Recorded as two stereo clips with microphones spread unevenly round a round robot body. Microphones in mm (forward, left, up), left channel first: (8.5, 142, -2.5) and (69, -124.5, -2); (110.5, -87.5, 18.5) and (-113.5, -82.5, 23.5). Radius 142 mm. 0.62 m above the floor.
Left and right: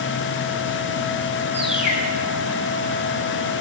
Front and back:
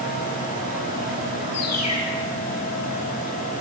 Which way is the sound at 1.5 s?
35° left.